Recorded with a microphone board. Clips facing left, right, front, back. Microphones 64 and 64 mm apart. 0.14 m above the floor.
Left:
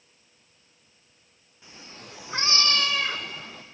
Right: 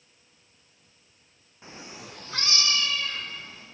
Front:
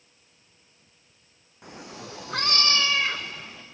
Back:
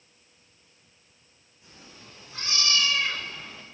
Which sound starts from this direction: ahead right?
A cat meowing, at 1.6 s.